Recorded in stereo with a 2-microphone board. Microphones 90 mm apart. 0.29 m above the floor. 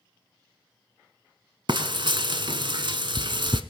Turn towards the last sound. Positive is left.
turn(degrees=-65)  # may be behind; listen again after turning